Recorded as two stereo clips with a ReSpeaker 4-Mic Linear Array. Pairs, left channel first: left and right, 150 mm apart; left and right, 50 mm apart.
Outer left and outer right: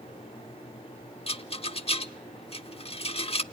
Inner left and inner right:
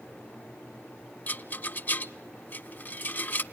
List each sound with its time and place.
1.3 s a rattle: 40° left (ahead or behind), 0.5 m